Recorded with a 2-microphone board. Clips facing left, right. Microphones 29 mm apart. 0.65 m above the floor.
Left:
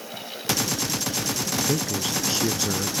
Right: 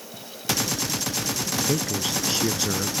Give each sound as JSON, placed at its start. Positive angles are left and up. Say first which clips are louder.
{"t": 1.7, "sound": "a man speaking", "louder": "even", "side_deg": -5}